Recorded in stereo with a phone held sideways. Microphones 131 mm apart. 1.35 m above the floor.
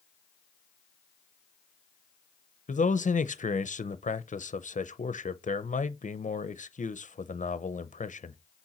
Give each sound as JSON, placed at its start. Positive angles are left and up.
{"t": 2.7, "sound": "a man speaking", "side_deg": 70, "distance_m": 0.6}